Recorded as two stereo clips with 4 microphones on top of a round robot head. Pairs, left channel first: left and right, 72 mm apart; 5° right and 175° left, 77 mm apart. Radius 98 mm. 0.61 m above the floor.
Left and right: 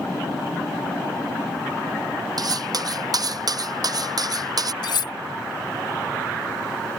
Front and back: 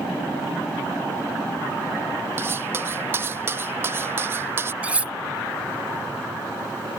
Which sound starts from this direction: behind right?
Cutlery clinking, at 2.4 s.